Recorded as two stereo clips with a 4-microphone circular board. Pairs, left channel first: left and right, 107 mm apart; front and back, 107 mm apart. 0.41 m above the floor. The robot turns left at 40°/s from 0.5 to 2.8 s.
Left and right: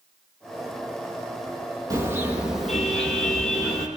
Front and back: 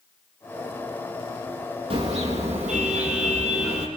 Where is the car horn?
150° right, 6.5 m; by 3.9 s 175° left, 6.5 m.